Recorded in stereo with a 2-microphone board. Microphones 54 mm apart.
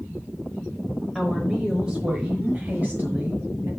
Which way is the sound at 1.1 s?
5° right (ahead or behind).